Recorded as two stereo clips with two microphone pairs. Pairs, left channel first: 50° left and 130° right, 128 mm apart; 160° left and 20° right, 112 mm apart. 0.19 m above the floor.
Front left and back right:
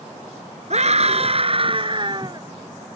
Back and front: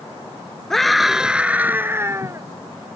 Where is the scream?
110° right; by 2.5 s 75° right.